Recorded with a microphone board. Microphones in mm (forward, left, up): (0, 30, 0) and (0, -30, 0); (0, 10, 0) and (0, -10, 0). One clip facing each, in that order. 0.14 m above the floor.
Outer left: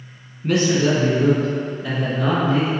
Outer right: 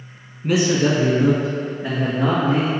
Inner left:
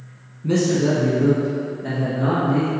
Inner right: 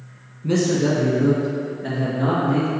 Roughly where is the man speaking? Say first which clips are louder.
Even, inner left 1 dB; centre.